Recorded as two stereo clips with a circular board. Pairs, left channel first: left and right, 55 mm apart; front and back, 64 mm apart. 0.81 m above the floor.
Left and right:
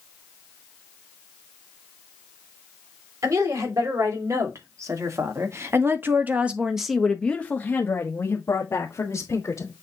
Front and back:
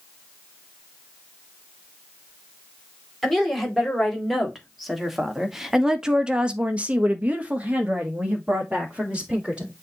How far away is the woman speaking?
About 3 m.